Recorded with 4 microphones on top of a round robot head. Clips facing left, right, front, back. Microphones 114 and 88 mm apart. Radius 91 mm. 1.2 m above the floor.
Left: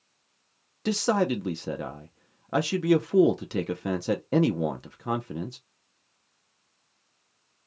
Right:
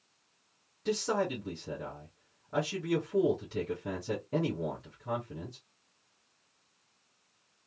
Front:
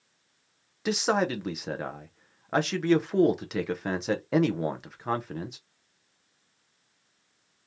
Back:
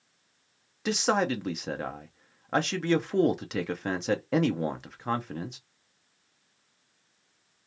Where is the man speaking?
90° left, 0.5 m.